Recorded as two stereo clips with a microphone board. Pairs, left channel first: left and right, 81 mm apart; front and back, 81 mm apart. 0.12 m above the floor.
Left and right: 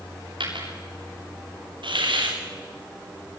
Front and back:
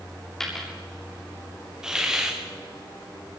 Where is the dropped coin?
85° right, 8 m.